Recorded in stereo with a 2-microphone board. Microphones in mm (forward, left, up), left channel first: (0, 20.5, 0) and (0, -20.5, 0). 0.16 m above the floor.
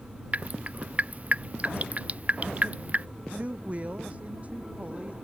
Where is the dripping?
35° right (ahead or behind).